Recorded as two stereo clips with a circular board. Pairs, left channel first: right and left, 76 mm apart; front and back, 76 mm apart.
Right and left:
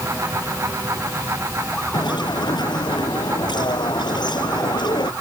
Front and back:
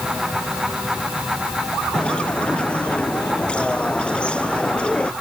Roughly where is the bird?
Right.